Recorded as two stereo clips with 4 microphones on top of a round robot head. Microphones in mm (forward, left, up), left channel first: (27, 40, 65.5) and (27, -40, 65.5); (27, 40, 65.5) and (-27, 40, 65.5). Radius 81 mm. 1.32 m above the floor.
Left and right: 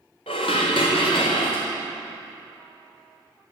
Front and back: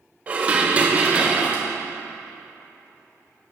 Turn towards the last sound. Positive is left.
turn(degrees=120)